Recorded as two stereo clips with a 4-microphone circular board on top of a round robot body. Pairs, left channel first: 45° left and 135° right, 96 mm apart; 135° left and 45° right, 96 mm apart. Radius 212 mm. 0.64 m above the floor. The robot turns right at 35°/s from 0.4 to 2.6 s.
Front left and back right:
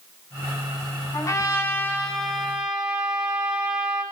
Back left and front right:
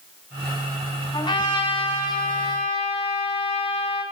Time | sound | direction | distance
1.1 | a trumpet | 95° left | 8.5 m